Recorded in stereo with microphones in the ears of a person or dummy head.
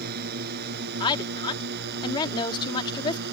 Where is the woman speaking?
25° left (ahead or behind).